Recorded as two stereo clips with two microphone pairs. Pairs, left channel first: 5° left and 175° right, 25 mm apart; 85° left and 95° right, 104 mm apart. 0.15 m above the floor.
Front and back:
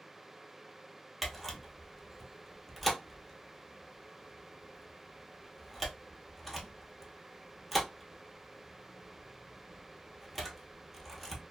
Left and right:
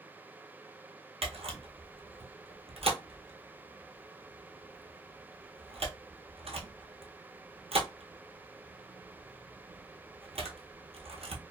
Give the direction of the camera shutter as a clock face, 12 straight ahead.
3 o'clock.